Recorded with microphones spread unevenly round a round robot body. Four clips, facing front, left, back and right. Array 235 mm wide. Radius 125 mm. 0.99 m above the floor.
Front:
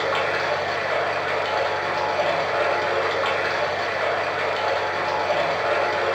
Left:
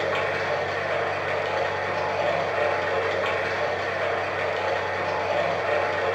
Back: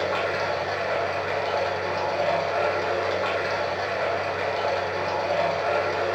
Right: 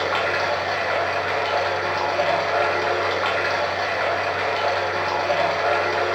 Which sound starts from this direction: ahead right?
Running water, at 0.0 s.